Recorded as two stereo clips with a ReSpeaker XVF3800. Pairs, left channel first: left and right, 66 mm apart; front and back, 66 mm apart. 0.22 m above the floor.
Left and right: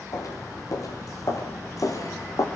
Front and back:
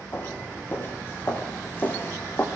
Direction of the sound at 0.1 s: 60° left.